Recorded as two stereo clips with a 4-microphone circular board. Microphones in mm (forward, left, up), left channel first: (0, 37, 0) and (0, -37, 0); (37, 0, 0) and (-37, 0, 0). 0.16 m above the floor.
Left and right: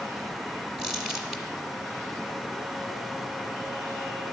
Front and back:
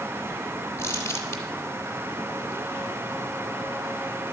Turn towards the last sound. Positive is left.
turn(degrees=-10)